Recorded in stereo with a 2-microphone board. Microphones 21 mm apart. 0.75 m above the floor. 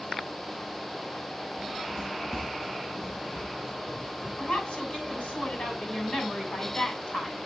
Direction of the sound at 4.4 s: 60° left (ahead or behind).